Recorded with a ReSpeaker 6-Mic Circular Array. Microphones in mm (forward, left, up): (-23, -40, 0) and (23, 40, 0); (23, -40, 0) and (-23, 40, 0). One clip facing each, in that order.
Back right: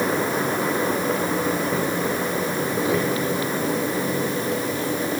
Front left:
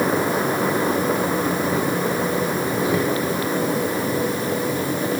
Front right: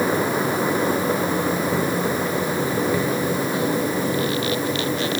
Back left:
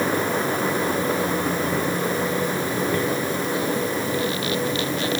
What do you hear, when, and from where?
Only background noise.